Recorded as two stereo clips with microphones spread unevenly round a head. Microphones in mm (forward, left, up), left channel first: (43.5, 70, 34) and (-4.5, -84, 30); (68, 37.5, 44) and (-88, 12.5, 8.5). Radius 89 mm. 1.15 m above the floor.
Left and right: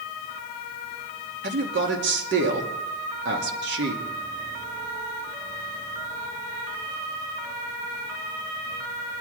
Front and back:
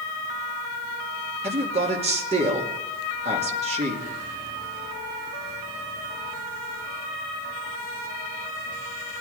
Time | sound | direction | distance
1.4 | a man speaking | 115° right | 2.5 m